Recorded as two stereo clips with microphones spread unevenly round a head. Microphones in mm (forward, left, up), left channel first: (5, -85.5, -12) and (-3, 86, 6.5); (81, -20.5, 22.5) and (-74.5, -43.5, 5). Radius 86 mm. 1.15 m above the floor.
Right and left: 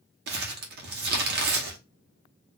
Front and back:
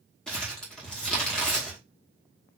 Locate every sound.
0.3 s crumpling: 90° left, 1.0 m